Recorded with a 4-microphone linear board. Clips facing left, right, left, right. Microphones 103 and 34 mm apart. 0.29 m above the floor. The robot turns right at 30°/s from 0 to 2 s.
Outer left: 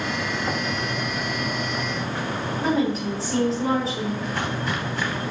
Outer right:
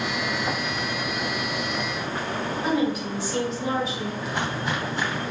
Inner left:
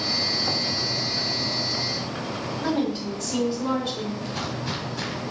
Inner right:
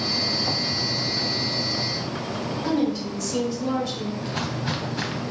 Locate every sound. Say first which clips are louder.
2.6 s a woman speaking: outer left 2 dB, inner right 1 dB; 35° left (ahead or behind), 2.5 m
4.2 s footsteps: outer left 1 dB, inner right 2 dB; 20° right (ahead or behind), 2.5 m